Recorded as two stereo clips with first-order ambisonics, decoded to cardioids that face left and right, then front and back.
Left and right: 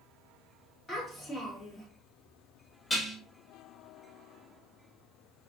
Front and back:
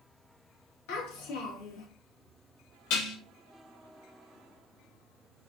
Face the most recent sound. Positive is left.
turn(degrees=10)